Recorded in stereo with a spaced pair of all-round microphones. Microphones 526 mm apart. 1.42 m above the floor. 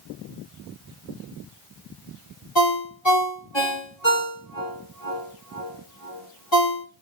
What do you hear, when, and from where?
2.5 s a ringtone: 55° left (ahead or behind), 1.7 m